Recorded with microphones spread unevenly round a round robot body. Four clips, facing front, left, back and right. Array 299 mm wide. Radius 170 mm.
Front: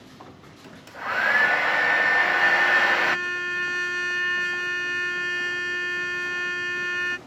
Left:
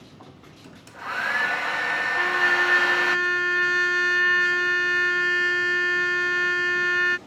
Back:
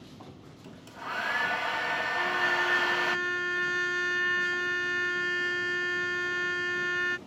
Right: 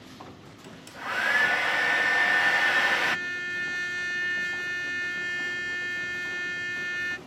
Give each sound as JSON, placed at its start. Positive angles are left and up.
{"t": 0.6, "sound": "a hair dryer", "azimuth_deg": 0}
{"t": 2.2, "sound": "a trumpet", "azimuth_deg": 70}